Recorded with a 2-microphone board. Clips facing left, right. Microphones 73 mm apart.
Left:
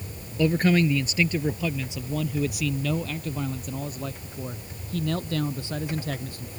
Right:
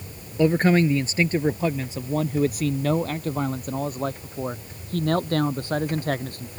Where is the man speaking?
30° right (ahead or behind); by 6.6 s 55° right (ahead or behind).